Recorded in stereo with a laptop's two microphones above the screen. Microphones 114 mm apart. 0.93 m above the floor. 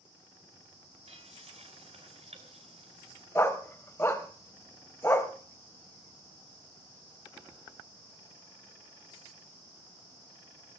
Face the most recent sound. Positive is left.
turn(degrees=25)  # may be behind; listen again after turning